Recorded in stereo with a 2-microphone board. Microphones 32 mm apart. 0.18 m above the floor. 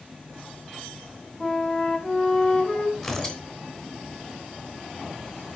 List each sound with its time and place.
1.4 s a flute: 15° left (ahead or behind), 1.4 m
3.0 s tearing paper: 20° left (ahead or behind), 1.7 m